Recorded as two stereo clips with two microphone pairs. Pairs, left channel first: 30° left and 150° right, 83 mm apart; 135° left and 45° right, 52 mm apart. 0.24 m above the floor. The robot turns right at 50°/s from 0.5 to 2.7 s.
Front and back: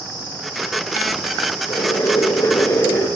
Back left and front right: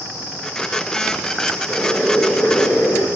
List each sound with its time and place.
1.7 s boiling: 40° left, 6 m; by 3.1 s 90° left, 6 m